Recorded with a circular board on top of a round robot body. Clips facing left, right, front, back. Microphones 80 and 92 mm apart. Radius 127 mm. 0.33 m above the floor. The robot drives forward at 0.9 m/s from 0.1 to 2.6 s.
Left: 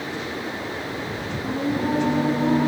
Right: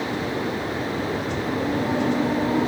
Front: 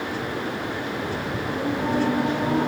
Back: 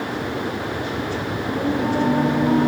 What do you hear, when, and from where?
1.4 s singing: 90° left, 5.5 m; by 2.7 s 100° left, 5.5 m